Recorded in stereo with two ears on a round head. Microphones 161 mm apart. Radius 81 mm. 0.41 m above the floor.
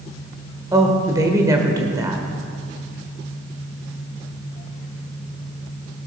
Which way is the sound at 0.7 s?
20° right (ahead or behind).